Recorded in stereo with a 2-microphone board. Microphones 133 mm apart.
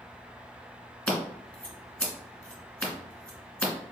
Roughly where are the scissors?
Centre.